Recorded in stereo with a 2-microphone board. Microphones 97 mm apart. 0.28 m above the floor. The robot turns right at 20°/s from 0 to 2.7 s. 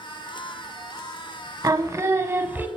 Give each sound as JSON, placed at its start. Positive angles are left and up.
{"t": 1.6, "sound": "singing", "side_deg": -40, "distance_m": 0.8}